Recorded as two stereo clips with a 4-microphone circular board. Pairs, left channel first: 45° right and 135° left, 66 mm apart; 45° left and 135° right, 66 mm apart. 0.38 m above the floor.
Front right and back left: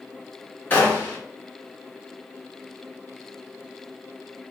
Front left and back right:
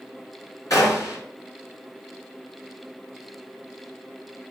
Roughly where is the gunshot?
Ahead.